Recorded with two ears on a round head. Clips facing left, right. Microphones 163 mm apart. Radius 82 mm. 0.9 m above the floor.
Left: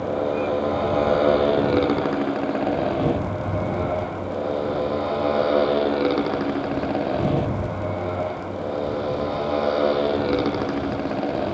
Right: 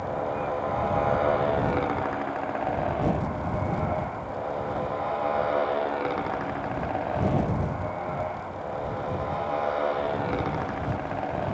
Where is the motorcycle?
40° left (ahead or behind); by 11.6 s 45° left (ahead or behind).